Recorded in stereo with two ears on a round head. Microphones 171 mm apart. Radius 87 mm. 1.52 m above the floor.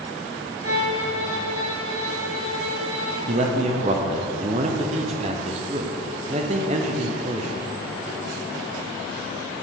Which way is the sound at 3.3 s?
35° right (ahead or behind).